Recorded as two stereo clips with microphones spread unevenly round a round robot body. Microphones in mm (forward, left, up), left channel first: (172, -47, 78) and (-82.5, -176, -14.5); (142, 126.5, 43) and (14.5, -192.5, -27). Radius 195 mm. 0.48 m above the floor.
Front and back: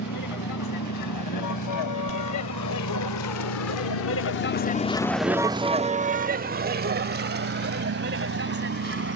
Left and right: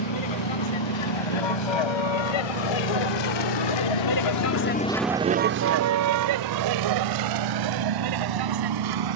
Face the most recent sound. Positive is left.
turn(degrees=-105)